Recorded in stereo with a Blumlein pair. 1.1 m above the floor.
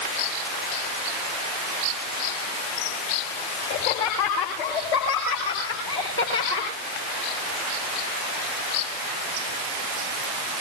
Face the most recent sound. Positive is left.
turn(degrees=80)